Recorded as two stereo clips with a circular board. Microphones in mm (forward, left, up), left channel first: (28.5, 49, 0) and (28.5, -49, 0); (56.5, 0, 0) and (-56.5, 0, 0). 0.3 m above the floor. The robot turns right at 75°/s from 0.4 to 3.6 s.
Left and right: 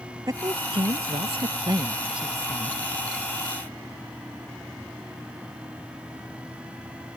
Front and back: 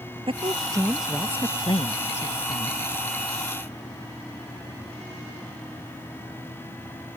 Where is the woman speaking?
145° right; by 2.8 s 35° left.